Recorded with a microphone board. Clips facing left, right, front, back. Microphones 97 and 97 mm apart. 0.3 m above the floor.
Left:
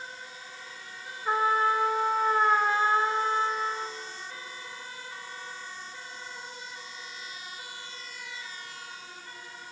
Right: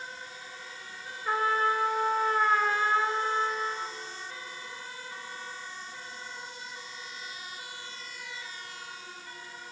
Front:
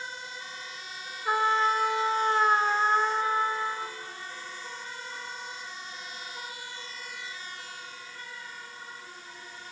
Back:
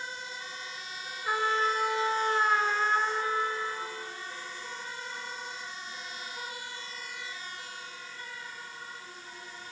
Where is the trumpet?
35° left, 1.4 m.